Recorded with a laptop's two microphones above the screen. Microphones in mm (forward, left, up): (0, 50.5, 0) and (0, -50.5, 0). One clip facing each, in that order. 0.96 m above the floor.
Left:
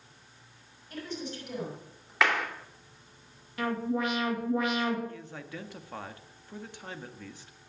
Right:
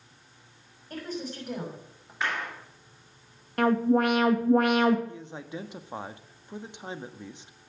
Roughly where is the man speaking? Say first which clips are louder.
Right 3 dB; centre.